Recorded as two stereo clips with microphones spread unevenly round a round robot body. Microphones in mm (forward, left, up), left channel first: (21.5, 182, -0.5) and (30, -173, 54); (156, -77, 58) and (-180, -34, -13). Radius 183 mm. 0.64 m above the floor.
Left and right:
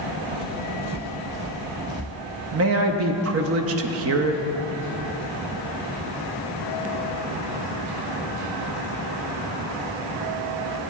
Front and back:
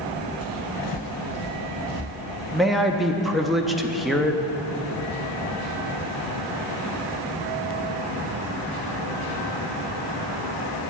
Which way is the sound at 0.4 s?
35° right.